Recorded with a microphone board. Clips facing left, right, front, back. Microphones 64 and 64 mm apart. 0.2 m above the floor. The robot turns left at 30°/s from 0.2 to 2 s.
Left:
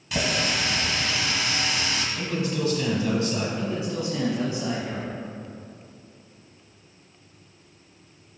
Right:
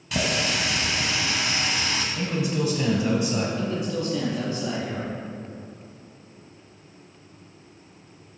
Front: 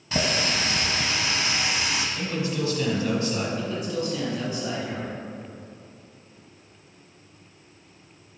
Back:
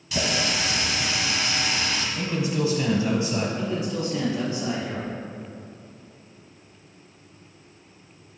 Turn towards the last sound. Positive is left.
turn(degrees=140)